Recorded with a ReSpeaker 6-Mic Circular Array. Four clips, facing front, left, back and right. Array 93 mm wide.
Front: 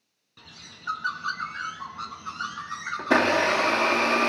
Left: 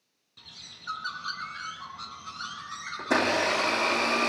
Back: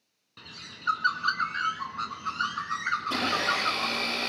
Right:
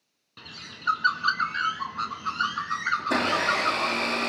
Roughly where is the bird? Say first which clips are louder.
Right 9 dB, back 2 dB; right.